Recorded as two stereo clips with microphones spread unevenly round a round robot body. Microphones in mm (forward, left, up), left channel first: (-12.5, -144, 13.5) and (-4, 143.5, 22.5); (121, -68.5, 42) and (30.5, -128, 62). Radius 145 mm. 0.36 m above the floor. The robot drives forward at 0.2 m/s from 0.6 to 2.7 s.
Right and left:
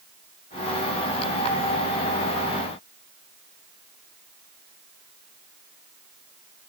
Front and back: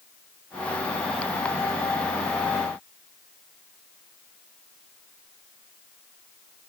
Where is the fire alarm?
I don't hear a fire alarm.